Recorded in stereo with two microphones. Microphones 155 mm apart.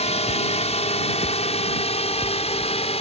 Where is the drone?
45° left (ahead or behind); by 3.0 s 40° left (ahead or behind).